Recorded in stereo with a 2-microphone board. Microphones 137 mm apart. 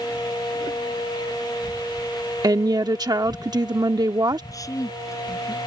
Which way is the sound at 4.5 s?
25° left (ahead or behind).